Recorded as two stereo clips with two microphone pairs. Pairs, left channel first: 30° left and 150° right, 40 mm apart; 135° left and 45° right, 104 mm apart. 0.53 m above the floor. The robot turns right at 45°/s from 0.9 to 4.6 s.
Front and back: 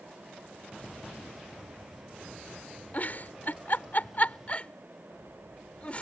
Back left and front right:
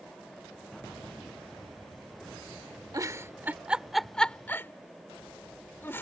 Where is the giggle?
Straight ahead; by 6.0 s 75° left.